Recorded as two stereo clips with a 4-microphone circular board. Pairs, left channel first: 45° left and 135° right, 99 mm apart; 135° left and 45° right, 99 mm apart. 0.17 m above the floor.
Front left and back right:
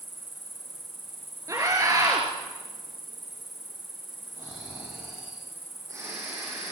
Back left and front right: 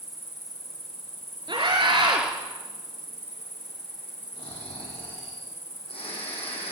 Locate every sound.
0.0 s an insect: 135° left, 6 m
1.5 s a scream: 80° right, 3.5 m
4.4 s snoring: 165° left, 8.5 m